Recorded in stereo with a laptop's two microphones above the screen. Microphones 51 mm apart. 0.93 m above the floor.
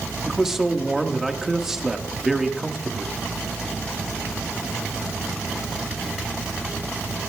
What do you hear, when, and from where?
0.2 s a man speaking: 10° right (ahead or behind), 1.3 m